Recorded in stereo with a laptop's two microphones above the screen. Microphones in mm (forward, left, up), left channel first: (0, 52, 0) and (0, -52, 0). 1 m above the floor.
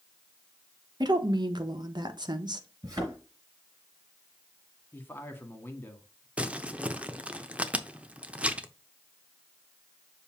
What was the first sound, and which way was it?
A woman speaking, 45° right (ahead or behind).